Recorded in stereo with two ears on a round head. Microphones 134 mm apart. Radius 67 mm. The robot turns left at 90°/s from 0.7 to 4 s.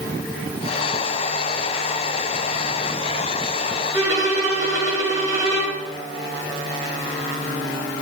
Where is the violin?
20° right (ahead or behind), 6.5 m; by 5.8 s 25° right (ahead or behind), 6.5 m.